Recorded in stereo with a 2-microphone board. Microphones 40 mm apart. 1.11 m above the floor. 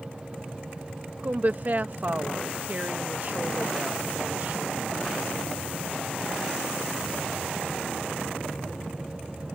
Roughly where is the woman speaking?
Right.